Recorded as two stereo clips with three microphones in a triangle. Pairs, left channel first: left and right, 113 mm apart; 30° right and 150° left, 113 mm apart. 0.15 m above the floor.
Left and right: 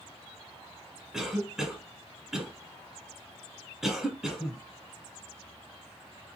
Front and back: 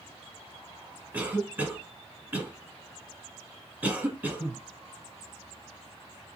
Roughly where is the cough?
Behind.